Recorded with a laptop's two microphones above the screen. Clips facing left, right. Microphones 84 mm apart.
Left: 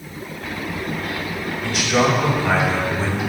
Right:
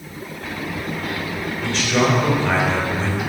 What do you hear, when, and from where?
1.6 s a man speaking: 10° left (ahead or behind), 4 m; by 3.2 s centre (ahead or behind), 3 m